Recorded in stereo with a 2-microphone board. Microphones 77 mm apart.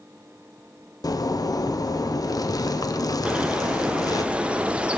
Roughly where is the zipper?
Left.